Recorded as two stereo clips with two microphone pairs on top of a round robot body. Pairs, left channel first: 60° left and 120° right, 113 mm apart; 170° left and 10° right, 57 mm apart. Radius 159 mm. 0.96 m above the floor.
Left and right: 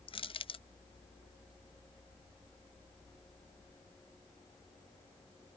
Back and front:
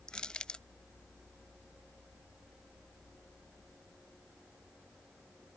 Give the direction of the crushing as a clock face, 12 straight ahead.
9 o'clock.